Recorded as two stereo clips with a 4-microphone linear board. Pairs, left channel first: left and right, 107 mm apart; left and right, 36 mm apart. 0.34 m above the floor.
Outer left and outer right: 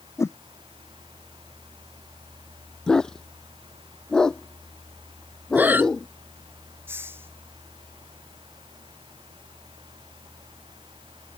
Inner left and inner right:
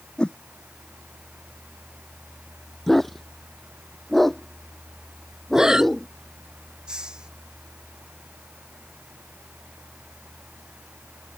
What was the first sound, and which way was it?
A whoosh, 25° left (ahead or behind).